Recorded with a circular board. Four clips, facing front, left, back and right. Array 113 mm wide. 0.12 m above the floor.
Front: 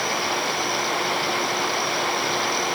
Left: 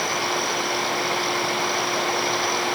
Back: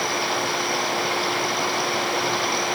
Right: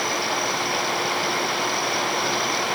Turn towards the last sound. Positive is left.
No sound to turn to.